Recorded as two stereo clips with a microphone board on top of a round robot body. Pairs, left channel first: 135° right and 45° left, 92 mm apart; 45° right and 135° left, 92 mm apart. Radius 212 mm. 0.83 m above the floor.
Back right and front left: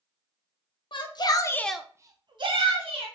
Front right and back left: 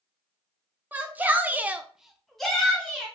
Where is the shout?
155° right, 0.7 m; by 3.1 s 35° left, 1.0 m.